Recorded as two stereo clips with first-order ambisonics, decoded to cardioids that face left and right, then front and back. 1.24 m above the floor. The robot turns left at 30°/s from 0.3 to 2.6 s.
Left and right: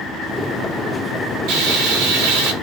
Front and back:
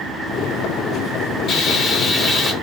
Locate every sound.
1.5 s frying: 65° right, 7.5 m; by 2.5 s 100° right, 7.5 m